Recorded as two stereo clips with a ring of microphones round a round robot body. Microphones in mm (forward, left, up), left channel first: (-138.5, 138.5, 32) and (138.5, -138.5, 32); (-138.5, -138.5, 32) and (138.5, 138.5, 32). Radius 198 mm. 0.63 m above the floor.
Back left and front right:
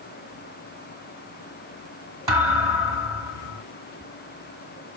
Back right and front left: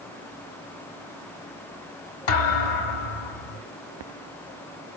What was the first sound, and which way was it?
A thud, 125° right.